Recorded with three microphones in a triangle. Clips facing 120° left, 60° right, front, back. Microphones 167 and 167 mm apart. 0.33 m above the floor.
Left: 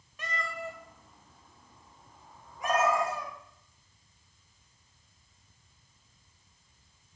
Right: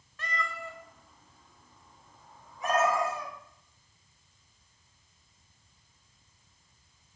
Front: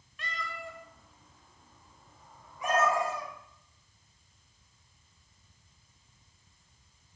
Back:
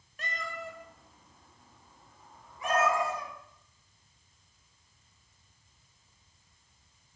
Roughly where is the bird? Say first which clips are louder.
Even, even; ahead.